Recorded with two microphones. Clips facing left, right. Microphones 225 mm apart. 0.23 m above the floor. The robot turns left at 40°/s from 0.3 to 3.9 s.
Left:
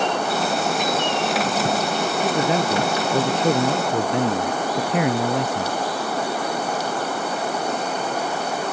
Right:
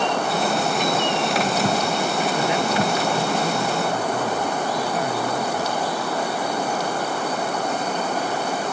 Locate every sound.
2.2 s a man speaking: 155° left; by 5.8 s 85° left